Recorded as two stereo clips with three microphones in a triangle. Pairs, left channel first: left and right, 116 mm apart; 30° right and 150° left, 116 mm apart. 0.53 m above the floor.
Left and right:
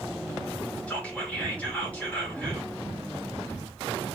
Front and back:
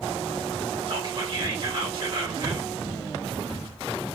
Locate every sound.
0.9 s whispering: 160° left, 1.8 m